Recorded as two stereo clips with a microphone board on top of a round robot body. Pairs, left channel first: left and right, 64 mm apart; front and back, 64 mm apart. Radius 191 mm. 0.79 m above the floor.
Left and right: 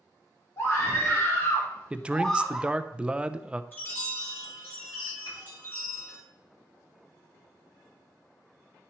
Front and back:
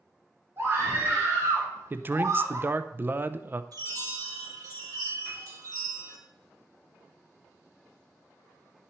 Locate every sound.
0.6 s a scream: 130° left, 2.5 m; by 2.7 s 160° right, 1.2 m
1.9 s a man speaking: 150° right, 0.7 m
3.7 s a chime: 150° left, 2 m
5.2 s a piano: 85° left, 3.5 m